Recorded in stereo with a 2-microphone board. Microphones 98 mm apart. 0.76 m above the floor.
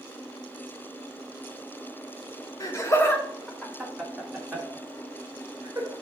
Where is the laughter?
40° left (ahead or behind), 1.9 m; by 5.9 s 30° right (ahead or behind), 3.5 m.